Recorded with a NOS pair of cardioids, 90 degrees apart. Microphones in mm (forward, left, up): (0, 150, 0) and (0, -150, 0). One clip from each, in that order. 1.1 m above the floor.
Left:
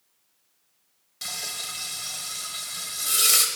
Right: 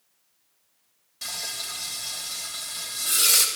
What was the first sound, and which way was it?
Frying, 20° left.